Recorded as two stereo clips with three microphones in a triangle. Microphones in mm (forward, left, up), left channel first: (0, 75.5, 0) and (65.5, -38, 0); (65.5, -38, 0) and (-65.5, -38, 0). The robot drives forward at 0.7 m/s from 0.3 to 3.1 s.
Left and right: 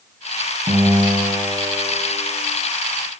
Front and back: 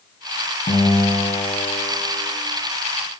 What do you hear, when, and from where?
0.7 s a guitar: 20° right, 6 m; by 2.3 s 25° right, 5 m